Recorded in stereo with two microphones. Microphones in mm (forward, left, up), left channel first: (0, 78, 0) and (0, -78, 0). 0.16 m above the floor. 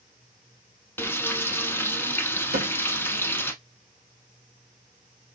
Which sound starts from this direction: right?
A cupboard door, at 2.5 s.